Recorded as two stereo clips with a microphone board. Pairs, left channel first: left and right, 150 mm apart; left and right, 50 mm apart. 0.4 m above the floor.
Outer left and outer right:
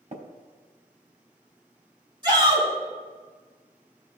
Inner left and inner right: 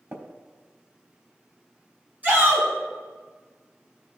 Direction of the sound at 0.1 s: 50° right (ahead or behind).